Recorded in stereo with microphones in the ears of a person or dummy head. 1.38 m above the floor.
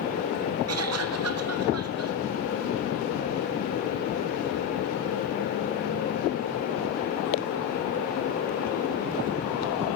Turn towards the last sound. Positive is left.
turn(degrees=-70)  # may be behind; listen again after turning